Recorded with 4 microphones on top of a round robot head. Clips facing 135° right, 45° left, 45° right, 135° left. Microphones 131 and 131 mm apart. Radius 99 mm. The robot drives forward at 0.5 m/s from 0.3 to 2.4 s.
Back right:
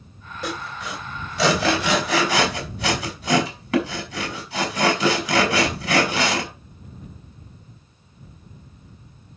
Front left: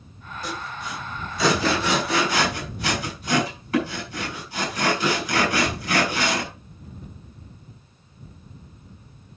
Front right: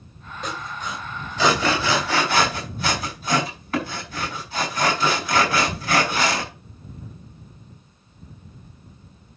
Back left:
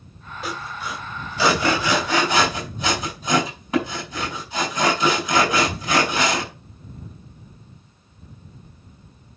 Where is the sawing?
140° right, 3 m; by 6.5 s 150° right, 3.5 m.